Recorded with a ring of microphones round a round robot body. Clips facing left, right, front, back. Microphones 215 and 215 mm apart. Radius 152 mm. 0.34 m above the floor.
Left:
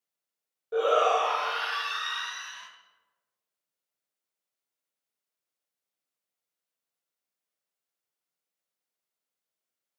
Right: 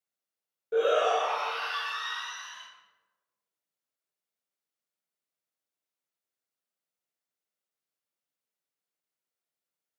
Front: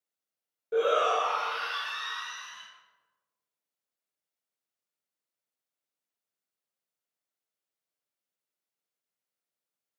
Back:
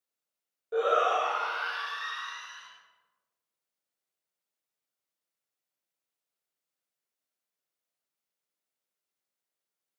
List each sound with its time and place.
0.7 s a shout: 40° right, 1.1 m; by 2.7 s 35° left, 2.0 m